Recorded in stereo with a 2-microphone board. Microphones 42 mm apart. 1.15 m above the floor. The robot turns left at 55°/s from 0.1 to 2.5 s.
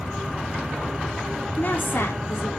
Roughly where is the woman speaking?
Behind left.